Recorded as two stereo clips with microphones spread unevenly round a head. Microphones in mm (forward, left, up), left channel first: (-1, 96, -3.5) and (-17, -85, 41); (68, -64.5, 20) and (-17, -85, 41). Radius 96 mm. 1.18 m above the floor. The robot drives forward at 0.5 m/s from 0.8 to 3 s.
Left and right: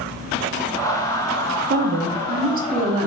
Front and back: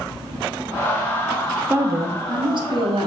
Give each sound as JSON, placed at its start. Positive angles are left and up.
{"t": 1.7, "sound": "a woman speaking", "azimuth_deg": -100, "distance_m": 0.7}